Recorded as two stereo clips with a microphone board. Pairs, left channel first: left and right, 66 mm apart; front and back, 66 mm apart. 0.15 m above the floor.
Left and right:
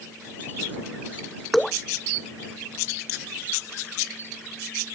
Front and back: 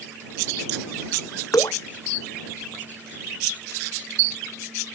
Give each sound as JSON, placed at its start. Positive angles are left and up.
{"t": 1.5, "sound": "dripping", "azimuth_deg": 0}